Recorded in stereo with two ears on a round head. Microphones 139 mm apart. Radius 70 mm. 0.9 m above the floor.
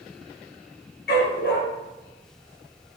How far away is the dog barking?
About 5.5 m.